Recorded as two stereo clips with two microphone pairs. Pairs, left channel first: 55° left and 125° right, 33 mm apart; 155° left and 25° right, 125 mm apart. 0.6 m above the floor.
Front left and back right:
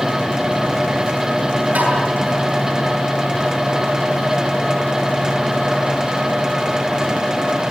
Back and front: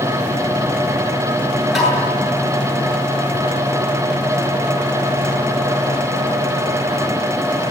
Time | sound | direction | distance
1.8 | tapping | 115° right | 8.5 m